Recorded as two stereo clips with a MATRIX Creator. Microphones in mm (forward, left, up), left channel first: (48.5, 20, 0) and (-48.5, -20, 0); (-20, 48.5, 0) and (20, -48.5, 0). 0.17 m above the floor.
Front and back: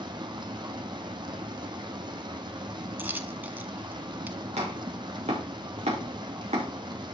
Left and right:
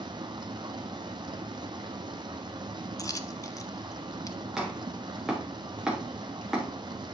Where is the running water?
110° right, 1.0 m.